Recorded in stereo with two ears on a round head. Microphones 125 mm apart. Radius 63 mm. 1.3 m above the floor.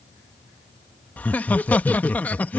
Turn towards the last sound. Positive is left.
turn(degrees=10)  # may be behind; listen again after turning